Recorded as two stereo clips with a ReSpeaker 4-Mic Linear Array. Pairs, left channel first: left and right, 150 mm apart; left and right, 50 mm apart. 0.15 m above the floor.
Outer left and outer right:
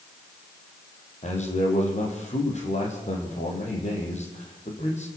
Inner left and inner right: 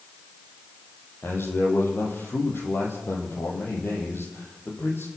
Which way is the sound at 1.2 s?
50° left (ahead or behind).